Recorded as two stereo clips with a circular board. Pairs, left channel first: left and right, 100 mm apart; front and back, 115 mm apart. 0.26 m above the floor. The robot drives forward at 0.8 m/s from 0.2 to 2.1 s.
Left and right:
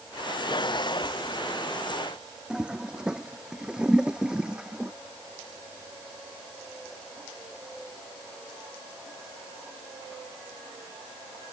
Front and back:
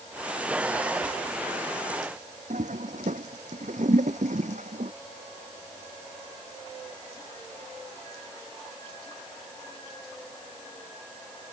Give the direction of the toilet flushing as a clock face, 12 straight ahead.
6 o'clock.